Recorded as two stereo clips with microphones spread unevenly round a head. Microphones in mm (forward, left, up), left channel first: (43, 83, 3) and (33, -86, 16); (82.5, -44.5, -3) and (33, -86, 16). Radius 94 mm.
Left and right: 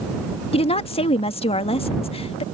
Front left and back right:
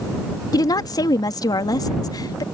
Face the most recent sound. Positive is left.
turn(degrees=30)